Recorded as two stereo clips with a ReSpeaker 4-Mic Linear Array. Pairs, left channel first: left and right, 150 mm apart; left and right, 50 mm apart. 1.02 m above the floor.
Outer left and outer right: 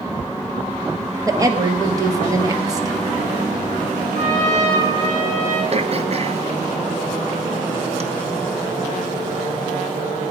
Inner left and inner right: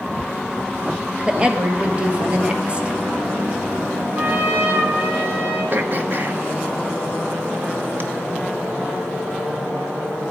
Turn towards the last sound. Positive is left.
turn(degrees=-45)  # may be behind; listen again after turning